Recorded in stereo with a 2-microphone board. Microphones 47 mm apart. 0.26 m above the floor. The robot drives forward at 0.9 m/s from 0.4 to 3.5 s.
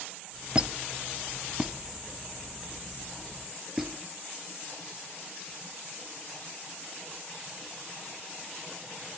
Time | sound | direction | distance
0.6 | a squeak | 20° right (ahead or behind) | 0.8 m